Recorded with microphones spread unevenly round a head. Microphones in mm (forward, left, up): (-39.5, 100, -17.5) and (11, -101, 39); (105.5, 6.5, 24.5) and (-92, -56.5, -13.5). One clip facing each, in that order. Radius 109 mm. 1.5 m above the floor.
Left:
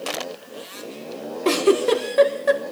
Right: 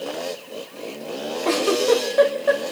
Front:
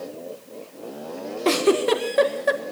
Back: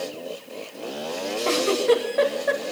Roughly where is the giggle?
Ahead left.